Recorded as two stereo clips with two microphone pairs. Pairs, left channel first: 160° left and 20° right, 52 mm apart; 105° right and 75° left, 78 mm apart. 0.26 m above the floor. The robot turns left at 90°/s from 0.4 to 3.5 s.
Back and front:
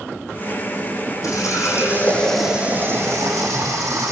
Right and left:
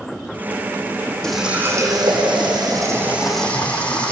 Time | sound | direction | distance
1.2 | a running tap | 175° left | 8.5 m